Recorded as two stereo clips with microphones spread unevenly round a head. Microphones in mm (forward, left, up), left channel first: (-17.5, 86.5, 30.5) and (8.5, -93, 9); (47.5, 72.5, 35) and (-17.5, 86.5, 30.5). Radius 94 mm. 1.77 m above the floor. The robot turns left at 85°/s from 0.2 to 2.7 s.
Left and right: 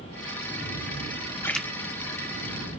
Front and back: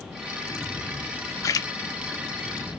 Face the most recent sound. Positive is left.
turn(degrees=-85)